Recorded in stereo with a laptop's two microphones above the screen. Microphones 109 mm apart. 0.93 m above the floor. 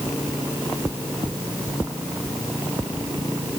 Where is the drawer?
I don't hear a drawer.